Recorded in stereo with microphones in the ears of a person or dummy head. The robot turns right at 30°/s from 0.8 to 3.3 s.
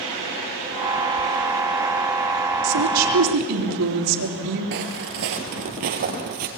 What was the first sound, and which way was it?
A woman speaking, 75° right (ahead or behind).